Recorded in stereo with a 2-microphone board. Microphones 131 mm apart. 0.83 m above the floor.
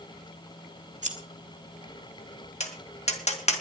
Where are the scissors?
65° right (ahead or behind), 2 m.